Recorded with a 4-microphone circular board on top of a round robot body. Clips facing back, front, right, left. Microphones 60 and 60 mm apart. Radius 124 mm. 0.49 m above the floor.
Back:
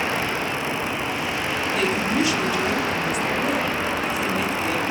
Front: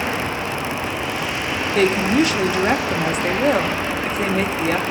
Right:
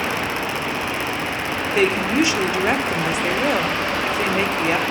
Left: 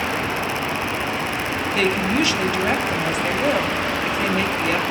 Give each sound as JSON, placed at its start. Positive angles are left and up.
{"t": 1.7, "sound": "a woman speaking", "azimuth_deg": -30, "distance_m": 1.7}